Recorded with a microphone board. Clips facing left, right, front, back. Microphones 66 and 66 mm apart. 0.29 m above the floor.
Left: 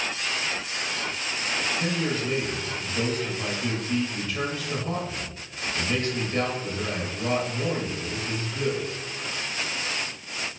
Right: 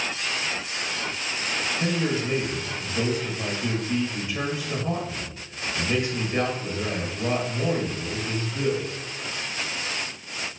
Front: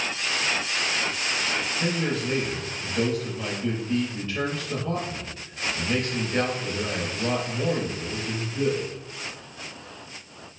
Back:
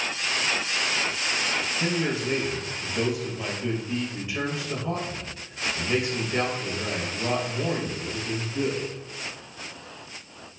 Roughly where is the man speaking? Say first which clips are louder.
Right 2 dB, back 1 dB; behind right.